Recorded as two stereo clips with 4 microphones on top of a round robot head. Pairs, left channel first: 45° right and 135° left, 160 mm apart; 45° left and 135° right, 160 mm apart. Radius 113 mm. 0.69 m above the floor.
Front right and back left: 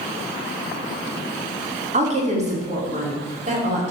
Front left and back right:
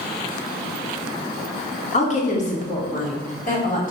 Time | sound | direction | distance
1.9 | a woman speaking | 90° left | 2.5 m